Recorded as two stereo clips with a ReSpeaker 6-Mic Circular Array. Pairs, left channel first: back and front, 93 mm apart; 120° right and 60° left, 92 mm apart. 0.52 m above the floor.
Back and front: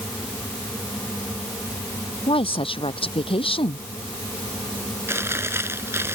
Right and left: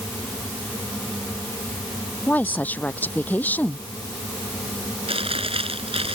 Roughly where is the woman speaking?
Behind.